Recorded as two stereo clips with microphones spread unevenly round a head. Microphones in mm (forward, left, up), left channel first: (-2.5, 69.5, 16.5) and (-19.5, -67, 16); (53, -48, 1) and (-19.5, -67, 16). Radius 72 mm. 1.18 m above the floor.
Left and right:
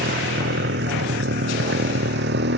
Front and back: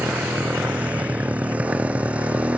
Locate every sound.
0.0 s a motorcycle: 95° right